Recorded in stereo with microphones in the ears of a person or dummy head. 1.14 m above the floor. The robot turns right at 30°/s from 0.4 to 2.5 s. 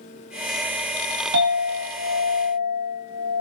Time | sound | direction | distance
1.3 | a clink | 70° right | 1.2 m